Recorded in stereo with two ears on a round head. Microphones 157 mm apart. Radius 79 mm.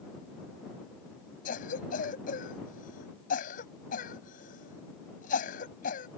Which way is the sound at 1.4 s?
50° left (ahead or behind).